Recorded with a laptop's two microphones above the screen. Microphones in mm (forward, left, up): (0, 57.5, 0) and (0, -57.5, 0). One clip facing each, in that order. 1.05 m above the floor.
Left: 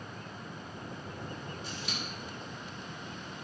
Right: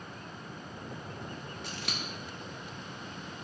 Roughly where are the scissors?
Right.